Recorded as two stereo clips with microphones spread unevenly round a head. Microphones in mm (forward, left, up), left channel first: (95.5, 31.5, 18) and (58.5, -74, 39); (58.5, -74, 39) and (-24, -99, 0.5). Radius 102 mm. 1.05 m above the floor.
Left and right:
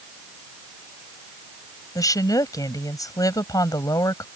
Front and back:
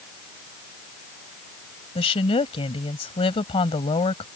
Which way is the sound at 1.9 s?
10° left.